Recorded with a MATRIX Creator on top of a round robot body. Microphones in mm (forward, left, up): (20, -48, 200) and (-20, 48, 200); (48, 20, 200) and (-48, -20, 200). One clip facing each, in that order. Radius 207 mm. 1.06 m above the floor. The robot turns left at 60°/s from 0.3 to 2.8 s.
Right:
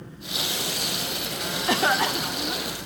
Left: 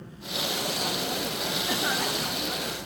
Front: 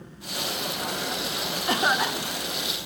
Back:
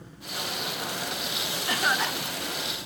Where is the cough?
35° right, 1.0 m; by 2.7 s 95° right, 1.0 m.